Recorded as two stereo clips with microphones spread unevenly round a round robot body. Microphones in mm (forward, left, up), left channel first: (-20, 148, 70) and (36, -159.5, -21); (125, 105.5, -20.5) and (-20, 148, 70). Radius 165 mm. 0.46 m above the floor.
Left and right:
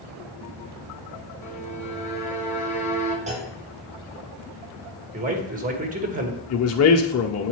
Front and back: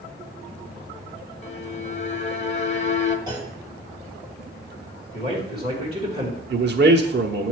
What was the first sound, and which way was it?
A violin, 30° left.